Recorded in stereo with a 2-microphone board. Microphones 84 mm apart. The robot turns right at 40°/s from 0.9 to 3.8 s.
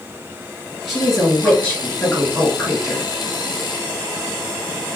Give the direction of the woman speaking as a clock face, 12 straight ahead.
12 o'clock.